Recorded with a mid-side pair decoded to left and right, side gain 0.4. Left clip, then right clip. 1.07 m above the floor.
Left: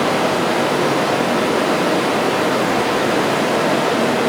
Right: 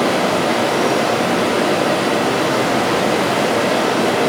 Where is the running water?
45° right, 1.6 m.